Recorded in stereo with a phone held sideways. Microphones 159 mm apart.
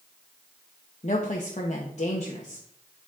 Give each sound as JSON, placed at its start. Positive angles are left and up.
{"t": 1.0, "sound": "a woman speaking", "side_deg": 50, "distance_m": 1.1}